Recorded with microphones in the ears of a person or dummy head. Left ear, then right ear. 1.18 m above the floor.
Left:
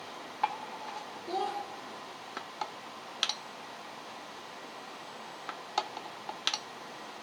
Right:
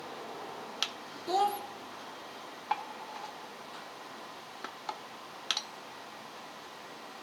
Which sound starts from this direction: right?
A child speaking, at 1.3 s.